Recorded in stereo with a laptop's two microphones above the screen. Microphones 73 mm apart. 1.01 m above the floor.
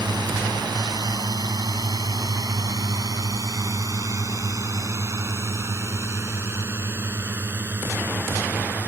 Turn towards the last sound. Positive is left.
turn(degrees=-25)  # may be behind; listen again after turning